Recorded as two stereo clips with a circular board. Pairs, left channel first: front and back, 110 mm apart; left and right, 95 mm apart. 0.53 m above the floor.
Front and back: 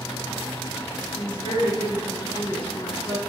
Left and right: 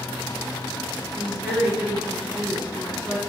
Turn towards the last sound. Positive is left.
turn(degrees=-10)